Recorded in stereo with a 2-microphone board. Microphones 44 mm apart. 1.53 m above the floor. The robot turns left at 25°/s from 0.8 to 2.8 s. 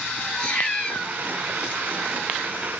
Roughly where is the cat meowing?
Left.